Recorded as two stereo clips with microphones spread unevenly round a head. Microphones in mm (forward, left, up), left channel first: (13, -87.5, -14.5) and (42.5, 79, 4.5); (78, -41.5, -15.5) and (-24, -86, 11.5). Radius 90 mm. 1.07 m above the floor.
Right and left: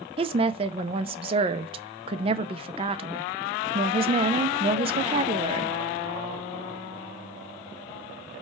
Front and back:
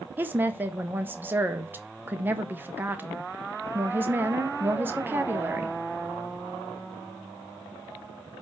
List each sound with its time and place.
0.2 s a woman speaking: 115° left, 0.6 m